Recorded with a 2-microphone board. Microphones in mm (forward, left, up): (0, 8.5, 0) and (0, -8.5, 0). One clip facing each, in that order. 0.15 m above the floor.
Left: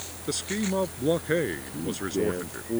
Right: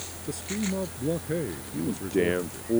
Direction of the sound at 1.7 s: 40° right (ahead or behind).